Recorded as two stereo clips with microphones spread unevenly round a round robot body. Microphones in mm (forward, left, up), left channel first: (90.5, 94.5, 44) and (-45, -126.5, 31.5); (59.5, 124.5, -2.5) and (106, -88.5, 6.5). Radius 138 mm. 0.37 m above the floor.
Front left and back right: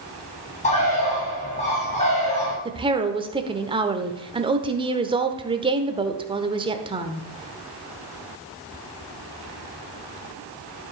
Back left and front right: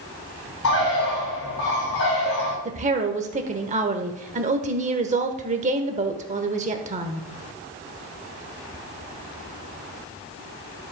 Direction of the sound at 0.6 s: 120° left.